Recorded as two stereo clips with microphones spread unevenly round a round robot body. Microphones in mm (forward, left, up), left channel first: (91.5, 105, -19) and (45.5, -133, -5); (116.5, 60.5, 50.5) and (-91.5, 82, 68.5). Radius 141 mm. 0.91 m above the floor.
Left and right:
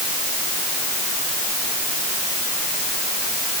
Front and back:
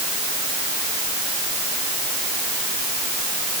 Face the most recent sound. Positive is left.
No sound to turn to.